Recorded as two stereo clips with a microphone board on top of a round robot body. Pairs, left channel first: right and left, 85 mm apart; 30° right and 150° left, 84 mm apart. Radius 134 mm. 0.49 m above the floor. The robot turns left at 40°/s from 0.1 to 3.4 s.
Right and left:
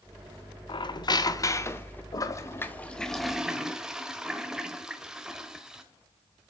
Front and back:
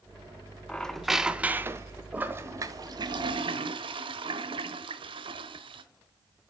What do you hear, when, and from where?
0.7 s a squeak: 110° right, 0.9 m; by 2.0 s 160° right, 0.9 m
2.1 s a toilet flushing: 135° right, 1.0 m; by 5.8 s 170° left, 1.0 m